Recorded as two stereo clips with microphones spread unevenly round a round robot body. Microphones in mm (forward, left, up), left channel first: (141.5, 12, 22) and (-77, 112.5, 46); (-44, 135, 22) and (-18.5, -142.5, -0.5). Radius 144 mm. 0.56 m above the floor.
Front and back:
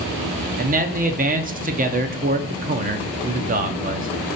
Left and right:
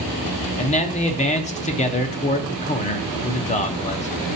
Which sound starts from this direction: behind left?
A man speaking, at 0.6 s.